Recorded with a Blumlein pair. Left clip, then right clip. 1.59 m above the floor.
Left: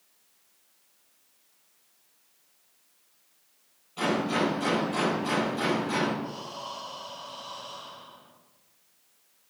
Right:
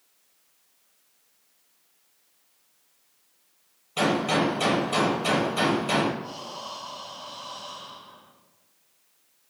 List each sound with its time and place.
4.0 s a gunshot: 40° right, 7.5 m
6.2 s breathing: 20° right, 2.5 m